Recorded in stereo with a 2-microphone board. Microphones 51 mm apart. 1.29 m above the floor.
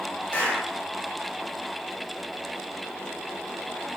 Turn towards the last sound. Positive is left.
turn(degrees=25)  # may be behind; listen again after turning